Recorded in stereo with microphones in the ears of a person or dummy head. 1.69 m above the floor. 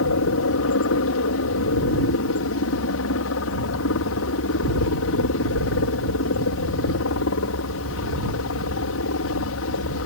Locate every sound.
0.0 s a helicopter: 70° left (ahead or behind)